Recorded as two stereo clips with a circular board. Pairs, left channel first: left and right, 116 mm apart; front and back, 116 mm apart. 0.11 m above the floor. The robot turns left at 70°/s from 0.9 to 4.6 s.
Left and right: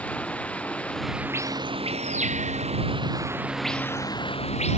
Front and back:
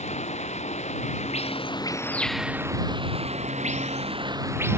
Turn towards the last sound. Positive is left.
turn(degrees=110)